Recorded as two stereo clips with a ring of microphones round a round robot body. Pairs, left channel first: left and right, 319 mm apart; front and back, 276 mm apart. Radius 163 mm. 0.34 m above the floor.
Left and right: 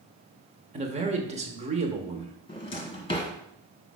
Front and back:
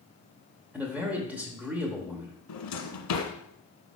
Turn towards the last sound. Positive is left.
turn(degrees=15)